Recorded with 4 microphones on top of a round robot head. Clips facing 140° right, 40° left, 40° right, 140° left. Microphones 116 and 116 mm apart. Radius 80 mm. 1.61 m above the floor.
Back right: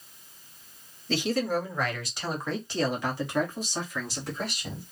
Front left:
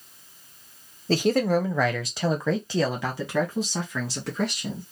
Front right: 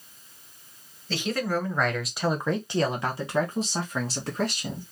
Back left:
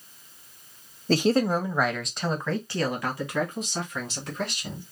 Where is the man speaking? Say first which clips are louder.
Front left 6 dB, back left 6 dB; 95° left, 0.7 m; by 4.8 s 15° left, 2.5 m.